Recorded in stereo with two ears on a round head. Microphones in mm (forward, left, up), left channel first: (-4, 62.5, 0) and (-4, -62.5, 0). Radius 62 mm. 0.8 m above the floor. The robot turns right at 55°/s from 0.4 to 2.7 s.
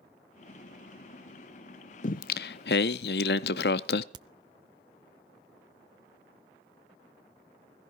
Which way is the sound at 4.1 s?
30° right (ahead or behind).